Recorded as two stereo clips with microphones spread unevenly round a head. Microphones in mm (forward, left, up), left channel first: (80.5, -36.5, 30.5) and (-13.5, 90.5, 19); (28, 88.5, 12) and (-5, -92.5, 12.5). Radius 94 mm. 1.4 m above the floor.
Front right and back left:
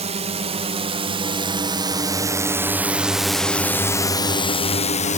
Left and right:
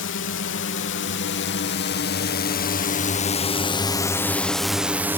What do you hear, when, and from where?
0.0 s a drone: 85° left; by 5.2 s 25° right